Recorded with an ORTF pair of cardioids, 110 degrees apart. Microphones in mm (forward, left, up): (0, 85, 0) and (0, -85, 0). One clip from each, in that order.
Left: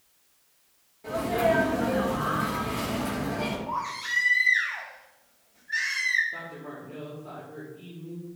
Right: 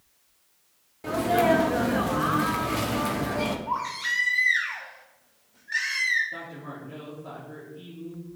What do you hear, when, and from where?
1.0 s a sneeze: 55° right, 1.2 m
3.7 s a baby crying: 60° right, 3.5 m
6.3 s a man speaking: 55° right, 4 m